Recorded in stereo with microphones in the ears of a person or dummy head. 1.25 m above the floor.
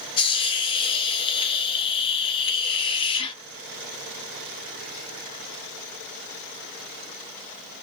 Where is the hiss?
30° left (ahead or behind), 0.5 m.